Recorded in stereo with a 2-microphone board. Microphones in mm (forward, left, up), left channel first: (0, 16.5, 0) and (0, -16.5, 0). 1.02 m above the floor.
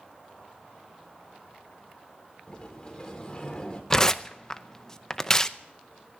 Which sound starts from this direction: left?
A sliding door, at 2.5 s.